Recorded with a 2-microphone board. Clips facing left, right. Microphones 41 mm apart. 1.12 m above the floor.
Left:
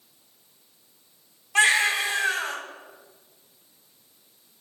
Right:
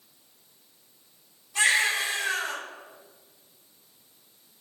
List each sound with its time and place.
1.6 s a baby crying: 65° left (ahead or behind), 2 m